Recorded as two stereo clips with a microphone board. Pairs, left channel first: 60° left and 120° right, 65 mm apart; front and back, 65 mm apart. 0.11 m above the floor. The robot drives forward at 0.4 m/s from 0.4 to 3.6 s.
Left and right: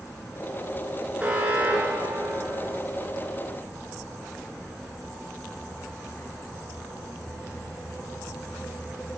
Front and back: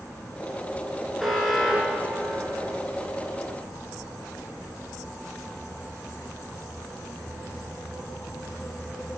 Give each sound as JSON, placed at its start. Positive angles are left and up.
{"t": 1.2, "sound": "an alarm", "azimuth_deg": -90, "distance_m": 2.0}